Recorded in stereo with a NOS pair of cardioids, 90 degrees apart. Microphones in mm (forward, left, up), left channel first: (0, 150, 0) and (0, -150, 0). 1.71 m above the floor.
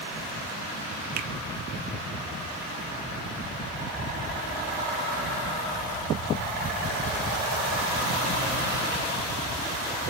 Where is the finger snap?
65° right, 0.6 m.